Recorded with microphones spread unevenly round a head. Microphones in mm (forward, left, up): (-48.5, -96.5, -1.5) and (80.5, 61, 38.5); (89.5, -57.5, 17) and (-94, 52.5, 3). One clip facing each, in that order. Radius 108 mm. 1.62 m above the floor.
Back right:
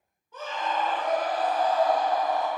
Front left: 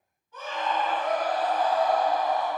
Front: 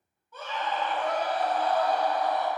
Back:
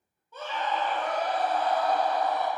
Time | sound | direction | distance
0.3 | a scream | 145° right | 1.9 m